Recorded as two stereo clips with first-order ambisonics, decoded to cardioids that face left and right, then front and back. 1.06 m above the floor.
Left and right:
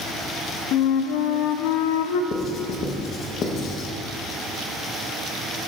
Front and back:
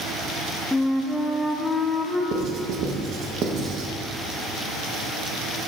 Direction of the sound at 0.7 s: 85° left.